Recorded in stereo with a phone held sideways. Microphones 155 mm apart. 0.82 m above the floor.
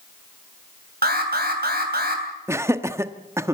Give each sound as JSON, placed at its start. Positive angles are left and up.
{"t": 1.0, "sound": "an alarm", "side_deg": -80, "distance_m": 3.5}
{"t": 2.5, "sound": "laughter", "side_deg": -15, "distance_m": 1.1}